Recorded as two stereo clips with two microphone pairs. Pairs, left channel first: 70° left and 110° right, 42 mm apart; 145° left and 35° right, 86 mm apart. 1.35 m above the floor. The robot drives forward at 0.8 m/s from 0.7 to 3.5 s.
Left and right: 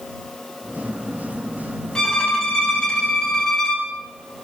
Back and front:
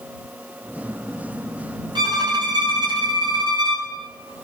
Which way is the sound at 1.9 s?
5° right.